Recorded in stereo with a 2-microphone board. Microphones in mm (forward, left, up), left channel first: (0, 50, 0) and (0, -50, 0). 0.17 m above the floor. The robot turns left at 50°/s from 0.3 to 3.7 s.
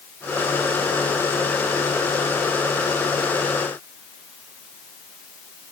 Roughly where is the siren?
No siren in this recording.